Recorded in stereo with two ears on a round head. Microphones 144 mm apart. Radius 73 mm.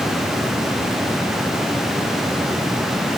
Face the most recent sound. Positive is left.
No sound to turn to.